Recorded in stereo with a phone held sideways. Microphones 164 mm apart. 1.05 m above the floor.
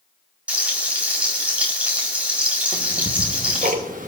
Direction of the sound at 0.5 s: 10° right (ahead or behind).